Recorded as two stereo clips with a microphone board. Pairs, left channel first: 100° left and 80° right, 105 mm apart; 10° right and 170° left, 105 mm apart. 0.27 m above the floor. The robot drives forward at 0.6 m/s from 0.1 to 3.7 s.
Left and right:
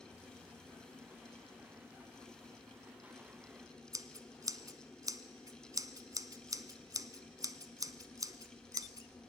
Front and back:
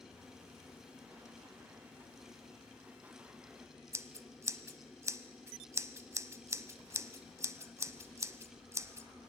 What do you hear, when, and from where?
3.9 s scissors: 130° right, 0.9 m